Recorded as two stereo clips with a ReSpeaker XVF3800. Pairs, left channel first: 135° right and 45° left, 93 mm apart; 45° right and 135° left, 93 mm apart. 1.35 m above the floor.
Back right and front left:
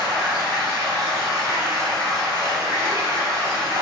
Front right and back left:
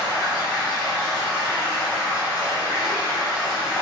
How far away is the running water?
About 1.0 m.